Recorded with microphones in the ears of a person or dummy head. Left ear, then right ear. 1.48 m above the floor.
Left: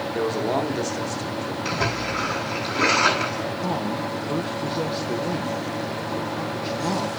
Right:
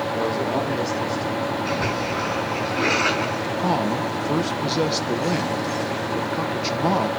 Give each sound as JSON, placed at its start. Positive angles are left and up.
{"t": 0.1, "sound": "a man speaking", "side_deg": 65, "distance_m": 3.5}
{"t": 1.6, "sound": "a splash", "side_deg": 85, "distance_m": 7.0}
{"t": 3.6, "sound": "a man speaking", "side_deg": -35, "distance_m": 0.7}